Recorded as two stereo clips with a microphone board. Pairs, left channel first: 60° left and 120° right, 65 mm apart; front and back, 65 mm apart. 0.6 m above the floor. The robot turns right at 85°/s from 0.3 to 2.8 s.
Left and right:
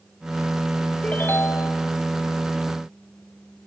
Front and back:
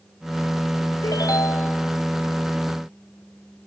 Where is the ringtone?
10° right, 1.2 m; by 1.8 s 50° left, 1.2 m.